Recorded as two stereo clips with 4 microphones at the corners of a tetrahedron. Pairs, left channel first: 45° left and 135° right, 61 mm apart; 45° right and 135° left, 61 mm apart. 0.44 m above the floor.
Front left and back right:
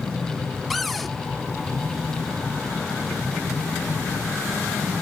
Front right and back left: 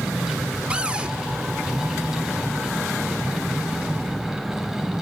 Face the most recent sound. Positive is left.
turn(degrees=135)